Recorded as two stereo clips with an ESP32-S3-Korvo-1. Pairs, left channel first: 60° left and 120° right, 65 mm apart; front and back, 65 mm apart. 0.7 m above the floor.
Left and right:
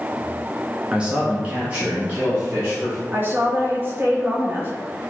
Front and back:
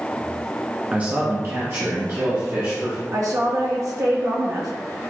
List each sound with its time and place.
0.9 s a man speaking: 160° right, 0.6 m; by 3.0 s 175° right, 1.7 m
3.1 s a woman speaking: 170° right, 0.9 m